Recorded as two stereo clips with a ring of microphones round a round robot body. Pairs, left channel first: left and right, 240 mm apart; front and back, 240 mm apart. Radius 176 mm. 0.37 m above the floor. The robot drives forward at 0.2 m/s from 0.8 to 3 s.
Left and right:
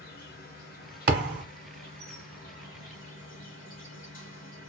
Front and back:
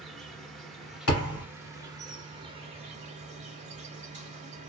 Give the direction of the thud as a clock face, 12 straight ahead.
1 o'clock.